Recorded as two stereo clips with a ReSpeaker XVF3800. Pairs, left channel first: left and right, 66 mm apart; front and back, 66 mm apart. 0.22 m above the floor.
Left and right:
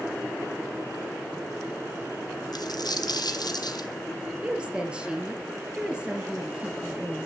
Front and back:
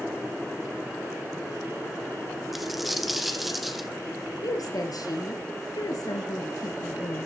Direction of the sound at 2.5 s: 90° left.